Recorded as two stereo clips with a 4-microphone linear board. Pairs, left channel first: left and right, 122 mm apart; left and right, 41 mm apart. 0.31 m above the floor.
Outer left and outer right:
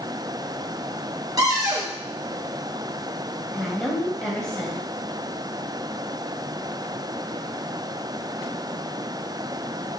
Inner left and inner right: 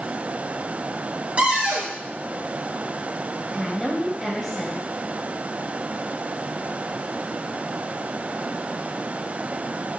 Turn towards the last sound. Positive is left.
turn(degrees=5)  # may be behind; listen again after turning